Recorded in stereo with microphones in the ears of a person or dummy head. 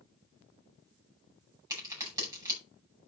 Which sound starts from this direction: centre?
A crack, at 1.7 s.